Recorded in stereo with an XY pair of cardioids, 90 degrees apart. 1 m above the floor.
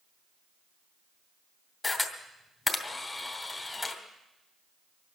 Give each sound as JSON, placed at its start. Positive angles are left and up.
{"t": 1.8, "sound": "a camera shutter", "azimuth_deg": 25, "distance_m": 2.5}